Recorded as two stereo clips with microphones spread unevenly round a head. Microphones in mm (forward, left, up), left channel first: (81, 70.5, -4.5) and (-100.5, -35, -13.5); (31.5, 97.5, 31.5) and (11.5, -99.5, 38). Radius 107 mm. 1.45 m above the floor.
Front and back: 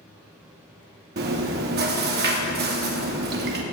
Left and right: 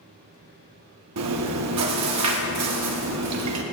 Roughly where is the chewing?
Right.